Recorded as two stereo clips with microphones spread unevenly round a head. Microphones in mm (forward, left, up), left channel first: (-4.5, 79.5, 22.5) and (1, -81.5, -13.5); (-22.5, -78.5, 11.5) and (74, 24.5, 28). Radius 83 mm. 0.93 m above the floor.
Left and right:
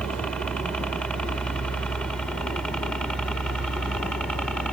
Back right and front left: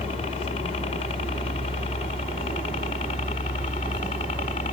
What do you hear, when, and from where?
0.0 s a helicopter: straight behind